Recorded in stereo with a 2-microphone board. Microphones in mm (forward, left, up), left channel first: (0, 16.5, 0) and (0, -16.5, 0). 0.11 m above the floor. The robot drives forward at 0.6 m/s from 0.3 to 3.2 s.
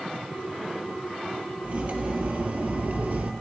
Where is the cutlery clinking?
45° right (ahead or behind), 1.6 m; by 3.3 s 55° right (ahead or behind), 1.3 m.